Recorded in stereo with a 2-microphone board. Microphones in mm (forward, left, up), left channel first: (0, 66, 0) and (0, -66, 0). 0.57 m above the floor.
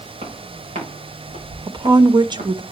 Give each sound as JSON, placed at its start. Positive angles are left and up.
{"t": 0.2, "sound": "footsteps", "side_deg": -55, "distance_m": 8.5}
{"t": 1.7, "sound": "a woman speaking", "side_deg": -35, "distance_m": 0.8}